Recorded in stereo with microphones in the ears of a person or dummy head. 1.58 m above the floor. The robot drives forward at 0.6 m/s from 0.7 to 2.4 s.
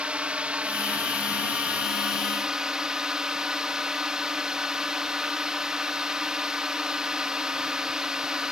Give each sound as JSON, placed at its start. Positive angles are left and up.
{"t": 0.0, "sound": "a drone", "side_deg": -10}